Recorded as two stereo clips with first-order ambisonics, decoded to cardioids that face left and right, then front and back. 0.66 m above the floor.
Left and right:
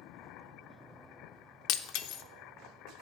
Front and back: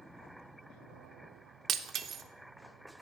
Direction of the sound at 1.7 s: 120° left.